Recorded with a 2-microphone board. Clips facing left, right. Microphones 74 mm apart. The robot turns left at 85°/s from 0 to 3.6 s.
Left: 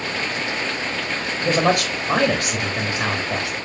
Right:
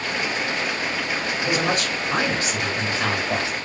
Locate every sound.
1.4 s a man speaking: 155° left, 3 m; by 3.5 s 30° right, 3 m